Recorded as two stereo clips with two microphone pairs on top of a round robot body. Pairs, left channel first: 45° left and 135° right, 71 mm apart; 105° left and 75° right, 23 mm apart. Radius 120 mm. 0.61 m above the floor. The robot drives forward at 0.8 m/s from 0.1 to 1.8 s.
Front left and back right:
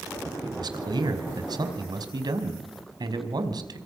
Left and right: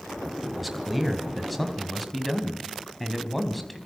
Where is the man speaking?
155° right, 3.5 m; by 3.8 s 160° right, 4.5 m.